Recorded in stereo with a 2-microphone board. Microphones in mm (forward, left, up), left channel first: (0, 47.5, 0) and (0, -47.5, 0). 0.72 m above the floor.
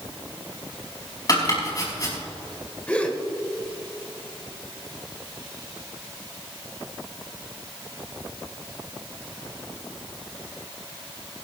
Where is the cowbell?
No cowbell in this recording.